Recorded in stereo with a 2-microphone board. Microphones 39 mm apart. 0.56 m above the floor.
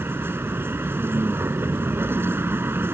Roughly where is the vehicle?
Right.